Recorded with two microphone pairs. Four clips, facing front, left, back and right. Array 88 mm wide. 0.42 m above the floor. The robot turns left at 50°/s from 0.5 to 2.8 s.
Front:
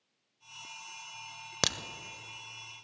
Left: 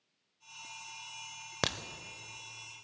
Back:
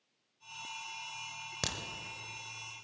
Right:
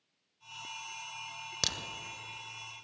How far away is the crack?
About 0.6 m.